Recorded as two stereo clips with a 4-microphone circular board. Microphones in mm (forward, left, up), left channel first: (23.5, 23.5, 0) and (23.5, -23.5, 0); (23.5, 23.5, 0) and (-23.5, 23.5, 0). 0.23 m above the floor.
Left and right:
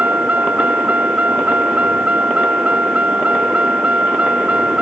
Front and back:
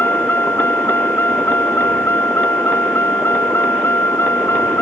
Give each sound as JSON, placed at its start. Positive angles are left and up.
{"t": 0.0, "sound": "a vehicle", "azimuth_deg": -35}